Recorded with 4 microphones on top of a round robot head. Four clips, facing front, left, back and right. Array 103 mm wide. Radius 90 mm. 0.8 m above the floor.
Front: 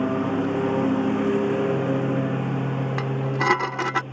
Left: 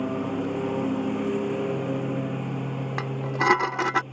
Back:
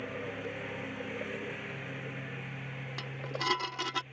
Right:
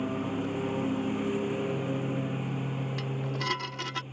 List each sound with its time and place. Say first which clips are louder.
0.0 s a lawn mower: left 4 dB, front 16 dB; 15° left
3.0 s dishes clattering: left 7 dB, front 10 dB; 50° left